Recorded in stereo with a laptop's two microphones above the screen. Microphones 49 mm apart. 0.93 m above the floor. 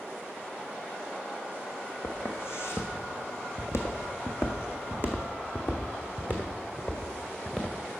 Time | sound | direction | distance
2.0 | footsteps | 55° left (ahead or behind) | 1.9 m